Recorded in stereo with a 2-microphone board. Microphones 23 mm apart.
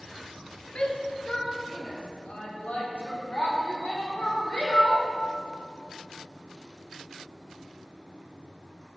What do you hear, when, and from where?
0.8 s a shout: 55° left (ahead or behind), 2.5 m; by 5.0 s 80° left, 7 m